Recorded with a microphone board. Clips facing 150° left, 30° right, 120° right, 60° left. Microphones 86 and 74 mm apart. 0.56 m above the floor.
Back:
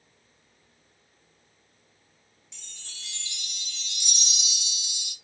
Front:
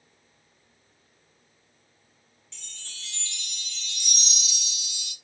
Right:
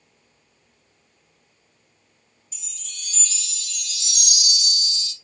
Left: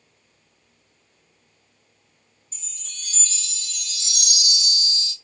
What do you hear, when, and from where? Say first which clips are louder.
2.5 s a chime: front 2 dB, right 1 dB; 80° left, 0.9 m